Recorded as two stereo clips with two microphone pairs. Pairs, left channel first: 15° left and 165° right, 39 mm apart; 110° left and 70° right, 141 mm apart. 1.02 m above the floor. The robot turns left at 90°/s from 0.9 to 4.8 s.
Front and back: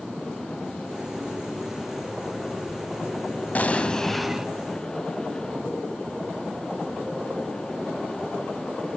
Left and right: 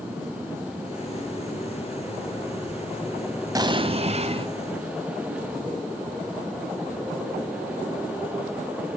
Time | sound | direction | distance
3.5 | an explosion | 20° right | 1.1 m